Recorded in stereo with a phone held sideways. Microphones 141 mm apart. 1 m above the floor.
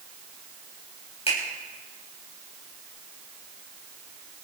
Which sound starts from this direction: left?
A finger snap, at 1.3 s.